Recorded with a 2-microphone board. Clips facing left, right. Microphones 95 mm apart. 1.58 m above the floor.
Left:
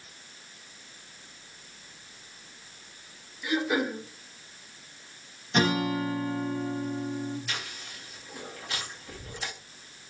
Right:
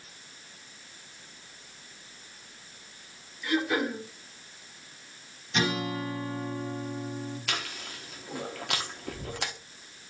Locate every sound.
3.4 s throat clearing: 15° left (ahead or behind), 2.5 m
5.5 s a guitar: 45° left (ahead or behind), 1.0 m
7.5 s chewing: 75° right (ahead or behind), 0.6 m